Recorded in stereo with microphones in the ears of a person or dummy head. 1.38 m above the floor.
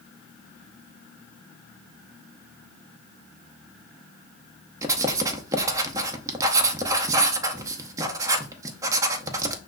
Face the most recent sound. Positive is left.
turn(degrees=-20)  # may be behind; listen again after turning